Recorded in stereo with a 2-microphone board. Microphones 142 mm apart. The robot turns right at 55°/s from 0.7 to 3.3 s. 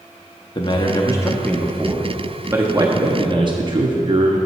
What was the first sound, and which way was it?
A man speaking, 115° left.